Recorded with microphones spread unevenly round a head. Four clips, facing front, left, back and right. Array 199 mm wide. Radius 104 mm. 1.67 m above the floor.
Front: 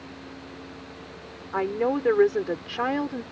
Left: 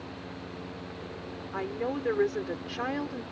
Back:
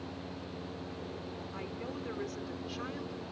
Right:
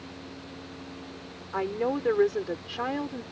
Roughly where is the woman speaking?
Ahead.